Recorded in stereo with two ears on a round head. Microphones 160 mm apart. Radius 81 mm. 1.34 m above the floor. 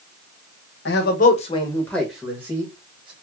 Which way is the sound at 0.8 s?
70° left (ahead or behind).